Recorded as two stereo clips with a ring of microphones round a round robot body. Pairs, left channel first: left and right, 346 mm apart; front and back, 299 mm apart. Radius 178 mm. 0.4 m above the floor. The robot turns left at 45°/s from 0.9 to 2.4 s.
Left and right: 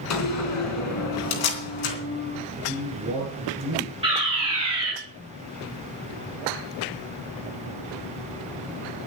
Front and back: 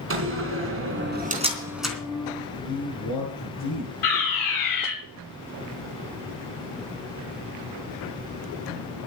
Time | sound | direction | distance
0.1 | a door slam | 135° left | 3.5 m
2.6 | a man speaking | 35° right | 8 m
4.0 | a fire alarm | 15° right | 7 m